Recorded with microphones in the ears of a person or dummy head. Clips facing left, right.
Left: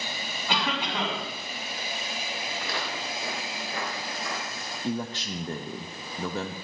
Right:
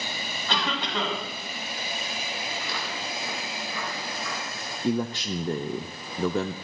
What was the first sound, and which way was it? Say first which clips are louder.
A cough: even; 5° left (ahead or behind).